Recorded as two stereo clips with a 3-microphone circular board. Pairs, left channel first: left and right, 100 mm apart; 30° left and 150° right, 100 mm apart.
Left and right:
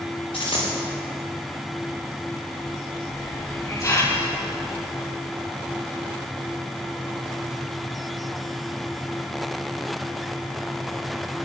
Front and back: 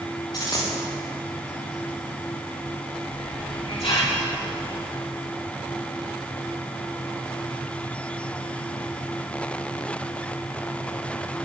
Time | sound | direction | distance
0.3 | a dropped coin | 75° left | 6.5 m
3.1 | a hiss | 35° left | 3.5 m